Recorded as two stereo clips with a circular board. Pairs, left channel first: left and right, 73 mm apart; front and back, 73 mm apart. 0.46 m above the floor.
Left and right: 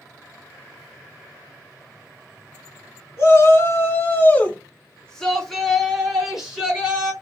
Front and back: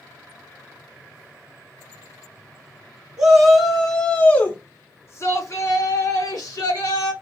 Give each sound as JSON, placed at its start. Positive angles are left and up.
{"t": 3.2, "sound": "a shout", "azimuth_deg": 105, "distance_m": 1.1}